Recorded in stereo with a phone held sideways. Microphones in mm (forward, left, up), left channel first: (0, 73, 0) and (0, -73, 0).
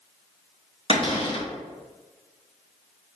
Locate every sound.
0.9 s a cupboard door: 40° left (ahead or behind), 0.7 m